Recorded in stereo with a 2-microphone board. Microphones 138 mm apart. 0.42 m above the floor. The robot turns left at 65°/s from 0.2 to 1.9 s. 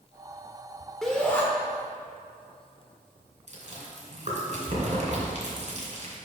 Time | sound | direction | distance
1.0 | a shout | 5° left (ahead or behind) | 0.8 m
3.5 | chewing | 55° right (ahead or behind) | 2.5 m